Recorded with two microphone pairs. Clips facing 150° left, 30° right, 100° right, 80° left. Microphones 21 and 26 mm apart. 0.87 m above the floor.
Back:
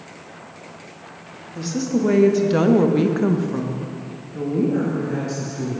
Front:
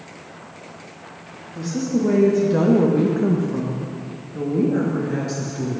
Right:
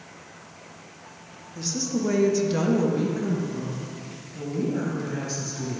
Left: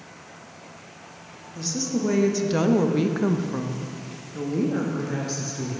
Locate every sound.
1.6 s a woman speaking: 175° left, 1.0 m; by 5.8 s 35° left, 1.3 m